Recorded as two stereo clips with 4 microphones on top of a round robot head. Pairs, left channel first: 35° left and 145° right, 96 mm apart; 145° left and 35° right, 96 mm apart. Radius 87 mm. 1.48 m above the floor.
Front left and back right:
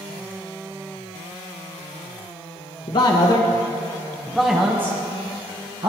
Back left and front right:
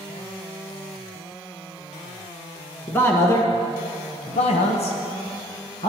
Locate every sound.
2.9 s a man speaking: 75° left, 1.5 m; by 5.9 s 175° left, 1.5 m